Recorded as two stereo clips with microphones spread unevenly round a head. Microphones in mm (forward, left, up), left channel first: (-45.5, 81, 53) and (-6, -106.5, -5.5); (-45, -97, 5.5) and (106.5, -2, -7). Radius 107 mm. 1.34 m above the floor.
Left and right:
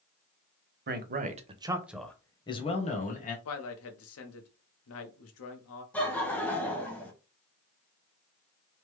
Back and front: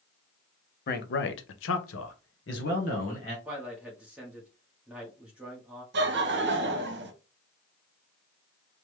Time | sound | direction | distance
0.9 | a man speaking | 115° right | 0.9 m
3.5 | a man speaking | 115° left | 0.8 m
5.9 | laughter | 15° left | 0.9 m